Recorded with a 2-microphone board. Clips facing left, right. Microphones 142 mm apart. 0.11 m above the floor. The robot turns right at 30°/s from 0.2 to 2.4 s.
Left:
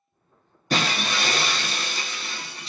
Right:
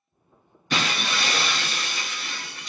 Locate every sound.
0.7 s breaking glass: 80° left, 0.7 m; by 2.7 s 130° left, 0.7 m